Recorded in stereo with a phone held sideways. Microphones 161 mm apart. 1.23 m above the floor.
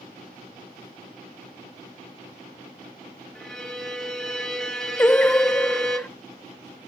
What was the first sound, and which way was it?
A violin, 5° left (ahead or behind).